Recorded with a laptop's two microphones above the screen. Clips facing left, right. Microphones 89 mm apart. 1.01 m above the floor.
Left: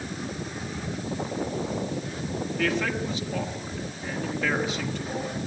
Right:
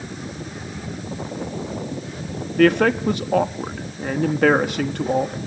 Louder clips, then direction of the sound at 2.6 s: Right 12 dB; 60° right (ahead or behind).